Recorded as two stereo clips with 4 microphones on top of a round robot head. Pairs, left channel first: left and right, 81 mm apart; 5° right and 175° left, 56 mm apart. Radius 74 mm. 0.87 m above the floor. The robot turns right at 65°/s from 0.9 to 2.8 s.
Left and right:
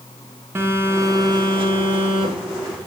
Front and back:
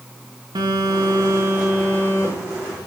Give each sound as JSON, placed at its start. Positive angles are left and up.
{"t": 0.6, "sound": "a phone buzzing", "azimuth_deg": -150, "distance_m": 0.7}